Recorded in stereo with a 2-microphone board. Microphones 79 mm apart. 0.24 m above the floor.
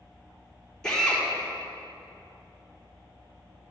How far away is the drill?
About 4.5 m.